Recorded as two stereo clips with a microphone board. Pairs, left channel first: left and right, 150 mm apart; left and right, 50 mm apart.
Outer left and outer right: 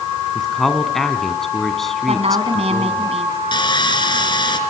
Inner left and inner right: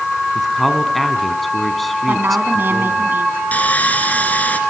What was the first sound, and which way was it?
A man speaking, centre (ahead or behind).